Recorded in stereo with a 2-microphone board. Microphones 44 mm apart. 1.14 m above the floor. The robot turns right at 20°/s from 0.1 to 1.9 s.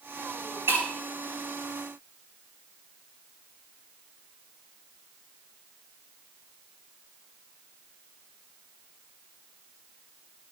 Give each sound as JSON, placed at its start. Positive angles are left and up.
{"t": 0.7, "sound": "breaking glass", "side_deg": -65, "distance_m": 4.5}